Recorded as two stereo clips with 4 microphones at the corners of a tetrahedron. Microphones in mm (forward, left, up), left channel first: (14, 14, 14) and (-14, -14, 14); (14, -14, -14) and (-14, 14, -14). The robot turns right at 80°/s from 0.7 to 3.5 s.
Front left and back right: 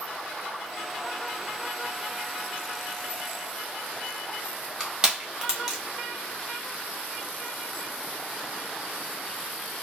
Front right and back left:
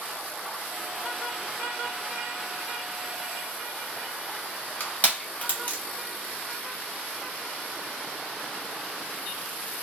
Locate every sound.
4.8 s crushing: 70° right, 0.9 m